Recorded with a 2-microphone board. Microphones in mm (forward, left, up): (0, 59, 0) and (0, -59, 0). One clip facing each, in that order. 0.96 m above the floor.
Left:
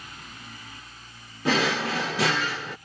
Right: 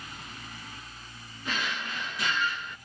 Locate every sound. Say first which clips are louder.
1.4 s a drawer: left 10 dB; 75° left (ahead or behind)